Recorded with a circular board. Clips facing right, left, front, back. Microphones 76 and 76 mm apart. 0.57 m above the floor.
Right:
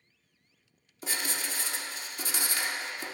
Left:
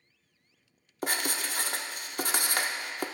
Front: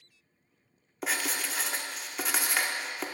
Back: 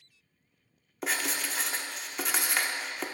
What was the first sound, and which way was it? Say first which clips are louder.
Writing: left 4 dB, even; 90° left.